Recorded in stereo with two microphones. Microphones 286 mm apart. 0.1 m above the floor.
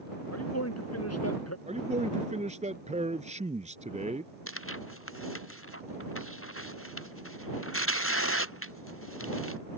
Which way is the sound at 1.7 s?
25° right (ahead or behind).